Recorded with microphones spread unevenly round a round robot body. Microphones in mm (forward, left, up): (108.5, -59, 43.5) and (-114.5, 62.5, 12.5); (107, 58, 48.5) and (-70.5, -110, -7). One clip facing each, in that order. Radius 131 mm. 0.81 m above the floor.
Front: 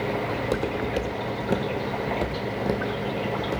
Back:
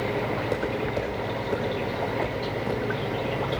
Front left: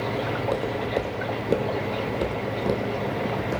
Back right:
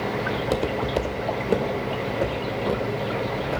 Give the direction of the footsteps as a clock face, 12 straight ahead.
3 o'clock.